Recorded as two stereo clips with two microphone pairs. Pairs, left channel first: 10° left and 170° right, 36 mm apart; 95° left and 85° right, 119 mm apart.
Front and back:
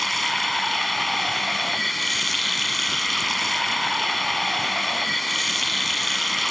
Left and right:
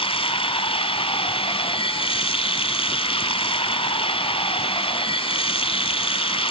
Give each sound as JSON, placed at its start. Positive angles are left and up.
{"t": 0.0, "sound": "running water", "azimuth_deg": 100, "distance_m": 0.9}